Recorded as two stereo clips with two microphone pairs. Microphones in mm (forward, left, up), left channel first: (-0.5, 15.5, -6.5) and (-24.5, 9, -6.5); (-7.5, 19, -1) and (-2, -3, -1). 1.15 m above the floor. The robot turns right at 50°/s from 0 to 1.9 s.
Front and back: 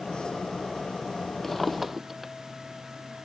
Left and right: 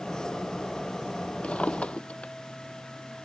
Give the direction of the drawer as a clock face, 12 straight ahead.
9 o'clock.